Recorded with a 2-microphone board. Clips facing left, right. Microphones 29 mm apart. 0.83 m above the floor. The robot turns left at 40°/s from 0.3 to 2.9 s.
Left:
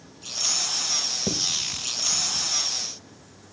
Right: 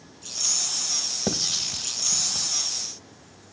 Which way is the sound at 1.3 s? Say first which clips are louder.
Right 3 dB; 30° right (ahead or behind).